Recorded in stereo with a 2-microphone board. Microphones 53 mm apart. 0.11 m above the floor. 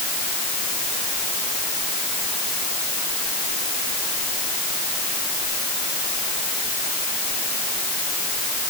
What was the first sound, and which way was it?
Only background noise.